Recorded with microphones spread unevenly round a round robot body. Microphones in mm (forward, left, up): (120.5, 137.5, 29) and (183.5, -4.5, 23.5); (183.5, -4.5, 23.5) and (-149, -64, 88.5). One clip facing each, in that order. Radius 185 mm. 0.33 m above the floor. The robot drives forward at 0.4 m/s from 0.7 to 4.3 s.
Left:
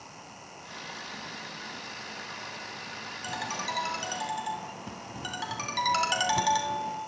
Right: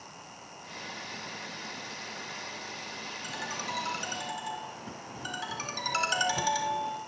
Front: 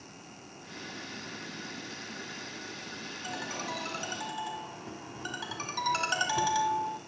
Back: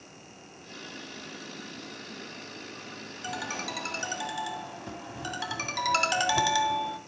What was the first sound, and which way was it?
A ringtone, 130° left.